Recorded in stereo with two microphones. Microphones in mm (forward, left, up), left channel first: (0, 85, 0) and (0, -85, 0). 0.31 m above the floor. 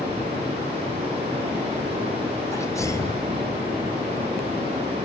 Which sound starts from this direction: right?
Running water, at 0.0 s.